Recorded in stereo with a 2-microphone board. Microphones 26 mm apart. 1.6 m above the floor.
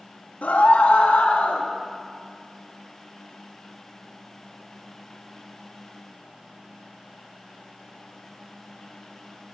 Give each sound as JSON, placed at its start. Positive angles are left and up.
{"t": 0.4, "sound": "a scream", "side_deg": 85, "distance_m": 3.5}